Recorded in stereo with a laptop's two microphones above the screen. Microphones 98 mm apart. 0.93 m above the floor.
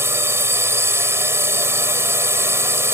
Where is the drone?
25° right (ahead or behind).